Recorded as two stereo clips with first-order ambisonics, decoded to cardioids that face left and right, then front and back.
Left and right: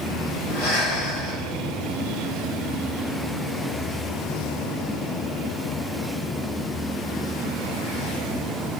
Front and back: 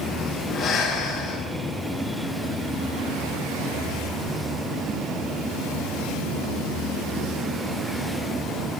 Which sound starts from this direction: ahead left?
Breathing, at 0.5 s.